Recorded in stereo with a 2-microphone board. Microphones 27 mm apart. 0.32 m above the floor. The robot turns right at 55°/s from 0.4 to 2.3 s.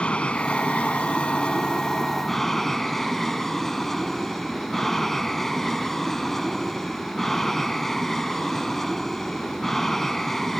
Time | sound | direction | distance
0.0 | an aircraft | 65° left | ?